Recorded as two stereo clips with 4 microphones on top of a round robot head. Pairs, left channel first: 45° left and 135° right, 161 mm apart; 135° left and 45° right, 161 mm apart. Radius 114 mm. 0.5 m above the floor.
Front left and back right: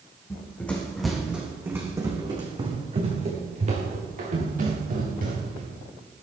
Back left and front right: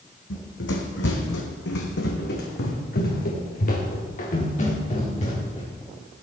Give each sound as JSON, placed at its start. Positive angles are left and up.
{"t": 0.3, "sound": "running footsteps", "azimuth_deg": 120, "distance_m": 2.5}